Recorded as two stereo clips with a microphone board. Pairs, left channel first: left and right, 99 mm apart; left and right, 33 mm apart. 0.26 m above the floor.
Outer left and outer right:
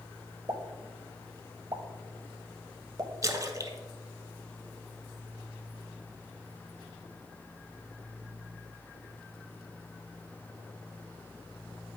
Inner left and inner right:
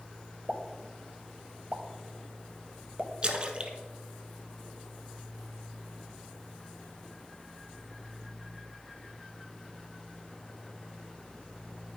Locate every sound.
0.5 s a pop: 45° right (ahead or behind), 0.7 m
3.2 s a splash: 35° right (ahead or behind), 0.6 m